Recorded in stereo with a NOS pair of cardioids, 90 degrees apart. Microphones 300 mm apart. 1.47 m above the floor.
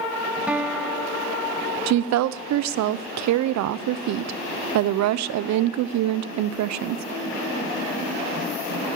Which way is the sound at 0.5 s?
5° right.